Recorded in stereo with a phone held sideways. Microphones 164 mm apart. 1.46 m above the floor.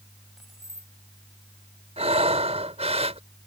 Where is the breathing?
40° right (ahead or behind).